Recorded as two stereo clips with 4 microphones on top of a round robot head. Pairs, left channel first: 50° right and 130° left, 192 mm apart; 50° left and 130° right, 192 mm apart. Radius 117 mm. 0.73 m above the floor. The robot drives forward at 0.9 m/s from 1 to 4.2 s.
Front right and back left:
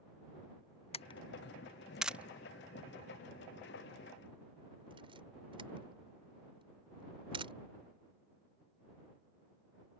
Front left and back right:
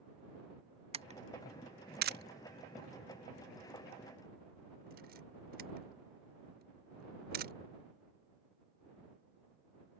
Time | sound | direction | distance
0.9 | a camera shutter | 90° right | ?